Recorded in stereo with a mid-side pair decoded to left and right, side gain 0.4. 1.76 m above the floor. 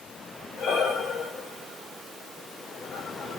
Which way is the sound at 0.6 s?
65° left.